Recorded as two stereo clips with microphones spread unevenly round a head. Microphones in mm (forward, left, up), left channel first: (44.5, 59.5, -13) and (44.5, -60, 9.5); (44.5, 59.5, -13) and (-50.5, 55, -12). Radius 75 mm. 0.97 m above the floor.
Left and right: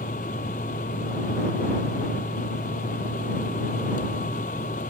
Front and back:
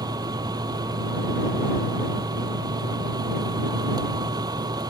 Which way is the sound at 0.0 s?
135° left.